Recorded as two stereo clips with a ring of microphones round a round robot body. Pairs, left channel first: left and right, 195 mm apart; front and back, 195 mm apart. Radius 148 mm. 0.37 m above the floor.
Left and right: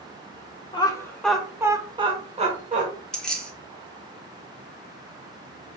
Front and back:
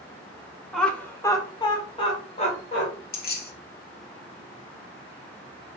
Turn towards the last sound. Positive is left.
turn(degrees=5)